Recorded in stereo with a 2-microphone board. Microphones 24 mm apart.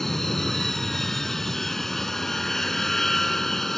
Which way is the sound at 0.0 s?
15° left (ahead or behind).